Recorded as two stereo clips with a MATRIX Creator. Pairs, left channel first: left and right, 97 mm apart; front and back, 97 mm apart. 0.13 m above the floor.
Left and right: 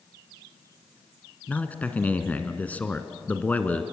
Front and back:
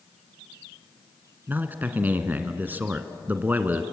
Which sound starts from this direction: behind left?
A man speaking, at 1.5 s.